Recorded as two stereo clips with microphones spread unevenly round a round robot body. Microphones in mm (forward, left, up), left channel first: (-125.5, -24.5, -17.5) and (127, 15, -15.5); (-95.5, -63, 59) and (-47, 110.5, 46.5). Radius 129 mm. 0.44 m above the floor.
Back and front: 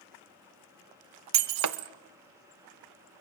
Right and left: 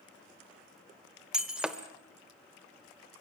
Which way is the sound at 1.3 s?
10° right.